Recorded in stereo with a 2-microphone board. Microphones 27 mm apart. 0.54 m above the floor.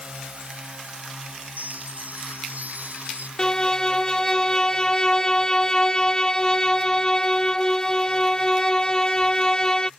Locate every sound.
0.0 s a drone: 50° right (ahead or behind); by 10.0 s 60° right (ahead or behind)
1.6 s a chime: 80° right
3.4 s a violin: 30° left (ahead or behind)